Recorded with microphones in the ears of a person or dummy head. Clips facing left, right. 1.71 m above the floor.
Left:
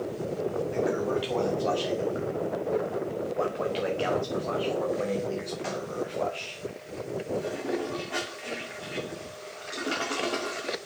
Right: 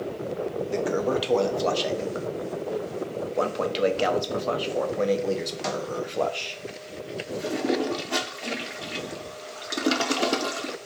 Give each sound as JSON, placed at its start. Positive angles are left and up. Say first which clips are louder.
{"t": 0.7, "sound": "a toilet flushing", "louder": "right 4 dB", "side_deg": -65, "distance_m": 0.9}